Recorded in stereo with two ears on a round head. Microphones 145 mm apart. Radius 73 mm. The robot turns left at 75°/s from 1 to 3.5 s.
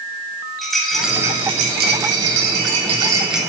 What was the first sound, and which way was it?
A rattle, straight ahead.